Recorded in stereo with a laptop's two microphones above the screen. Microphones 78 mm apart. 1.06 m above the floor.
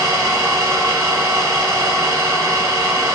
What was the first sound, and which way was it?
An engine running, 30° right (ahead or behind).